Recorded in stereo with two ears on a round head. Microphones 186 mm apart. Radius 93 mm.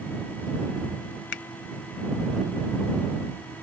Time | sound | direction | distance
1.3 | a finger snap | 55° left (ahead or behind) | ?